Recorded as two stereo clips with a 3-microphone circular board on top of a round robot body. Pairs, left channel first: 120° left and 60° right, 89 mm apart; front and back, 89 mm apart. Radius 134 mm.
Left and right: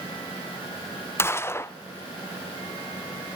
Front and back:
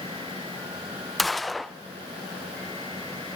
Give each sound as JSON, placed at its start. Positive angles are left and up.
{"t": 1.2, "sound": "a gunshot", "azimuth_deg": 90, "distance_m": 0.6}